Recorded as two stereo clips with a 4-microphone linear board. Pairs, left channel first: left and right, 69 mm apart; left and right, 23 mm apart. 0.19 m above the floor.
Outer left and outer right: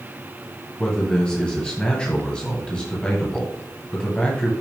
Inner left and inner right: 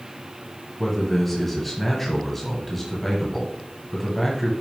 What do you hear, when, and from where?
0.8 s a man speaking: 15° left (ahead or behind), 1.7 m